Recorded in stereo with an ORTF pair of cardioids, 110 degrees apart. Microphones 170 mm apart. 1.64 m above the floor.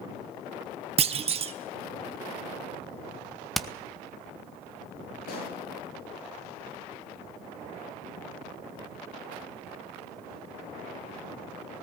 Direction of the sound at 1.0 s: 35° right.